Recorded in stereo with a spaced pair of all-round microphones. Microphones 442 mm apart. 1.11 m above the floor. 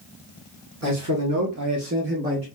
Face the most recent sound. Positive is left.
turn(degrees=-15)  # may be behind; listen again after turning